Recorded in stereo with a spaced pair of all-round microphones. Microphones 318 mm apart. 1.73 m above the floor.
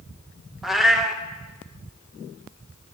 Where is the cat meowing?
Centre (ahead or behind), 0.9 m.